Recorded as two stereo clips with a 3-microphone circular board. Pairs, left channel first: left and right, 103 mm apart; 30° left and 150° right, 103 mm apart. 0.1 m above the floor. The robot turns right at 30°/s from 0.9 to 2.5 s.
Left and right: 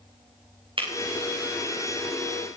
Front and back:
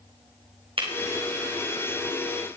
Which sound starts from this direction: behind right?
Breaking glass, at 0.8 s.